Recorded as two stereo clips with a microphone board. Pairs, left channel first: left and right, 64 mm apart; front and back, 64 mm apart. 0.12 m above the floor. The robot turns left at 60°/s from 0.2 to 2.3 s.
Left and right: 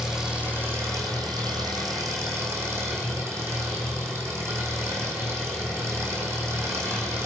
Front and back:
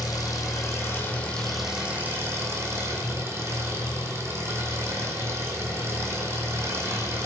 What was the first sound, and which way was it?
An engine running, 10° right.